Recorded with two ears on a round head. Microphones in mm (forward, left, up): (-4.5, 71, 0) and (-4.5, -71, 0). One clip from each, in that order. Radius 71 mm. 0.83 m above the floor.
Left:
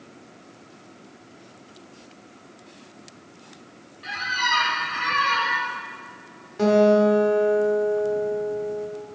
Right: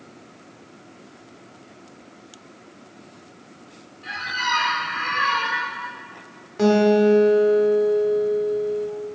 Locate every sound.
4.0 s a squeak: 35° left (ahead or behind), 1.2 m
6.6 s a guitar: 10° right (ahead or behind), 1.4 m